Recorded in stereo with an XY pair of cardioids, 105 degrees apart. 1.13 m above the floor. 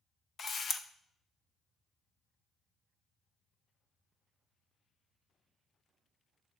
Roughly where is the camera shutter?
Ahead left.